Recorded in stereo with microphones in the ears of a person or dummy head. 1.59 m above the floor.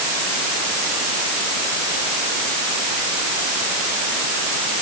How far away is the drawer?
I don't hear a drawer.